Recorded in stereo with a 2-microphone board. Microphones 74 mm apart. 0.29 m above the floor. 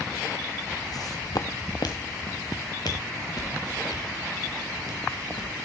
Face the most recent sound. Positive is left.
turn(degrees=60)  # may be behind; listen again after turning